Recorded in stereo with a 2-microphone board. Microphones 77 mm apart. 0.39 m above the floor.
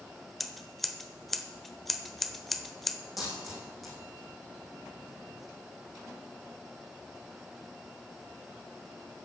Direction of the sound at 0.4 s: Centre (ahead or behind).